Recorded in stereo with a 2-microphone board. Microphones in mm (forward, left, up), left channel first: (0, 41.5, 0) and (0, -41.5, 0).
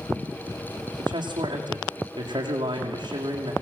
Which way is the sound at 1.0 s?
60° right (ahead or behind).